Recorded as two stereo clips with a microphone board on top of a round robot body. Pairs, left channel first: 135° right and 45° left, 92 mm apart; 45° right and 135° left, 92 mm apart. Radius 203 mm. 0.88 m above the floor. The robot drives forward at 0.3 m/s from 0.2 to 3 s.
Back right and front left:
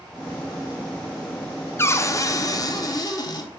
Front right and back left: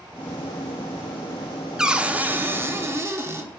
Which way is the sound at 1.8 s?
150° right.